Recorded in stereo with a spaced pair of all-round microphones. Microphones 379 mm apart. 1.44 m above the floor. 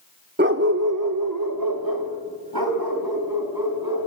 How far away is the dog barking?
About 1.0 m.